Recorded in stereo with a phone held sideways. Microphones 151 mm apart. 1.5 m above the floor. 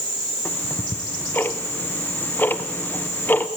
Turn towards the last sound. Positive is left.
turn(degrees=15)  # may be behind; listen again after turning